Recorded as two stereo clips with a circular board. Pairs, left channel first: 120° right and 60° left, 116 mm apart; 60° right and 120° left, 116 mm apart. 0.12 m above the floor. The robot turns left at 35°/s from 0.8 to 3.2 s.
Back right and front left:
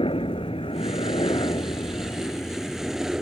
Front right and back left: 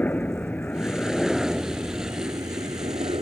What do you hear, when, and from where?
0.0 s a helicopter: 135° right; by 3.2 s 145° left